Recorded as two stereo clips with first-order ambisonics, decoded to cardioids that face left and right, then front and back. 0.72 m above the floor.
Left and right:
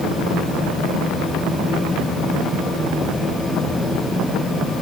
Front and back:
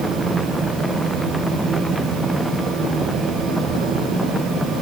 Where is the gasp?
I don't hear a gasp.